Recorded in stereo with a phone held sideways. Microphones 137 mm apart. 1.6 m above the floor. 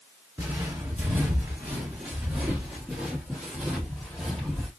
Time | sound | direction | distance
0.4 | footsteps | 20° right (ahead or behind) | 1.8 m